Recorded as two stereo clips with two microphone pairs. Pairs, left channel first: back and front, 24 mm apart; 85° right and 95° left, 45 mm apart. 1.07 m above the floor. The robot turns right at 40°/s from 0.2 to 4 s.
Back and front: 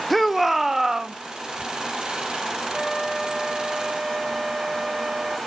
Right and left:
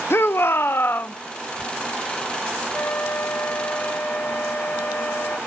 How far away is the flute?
About 0.6 m.